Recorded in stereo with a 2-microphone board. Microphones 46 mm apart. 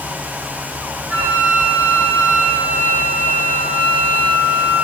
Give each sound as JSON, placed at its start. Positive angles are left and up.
{"t": 1.1, "sound": "a flute", "side_deg": -30, "distance_m": 4.5}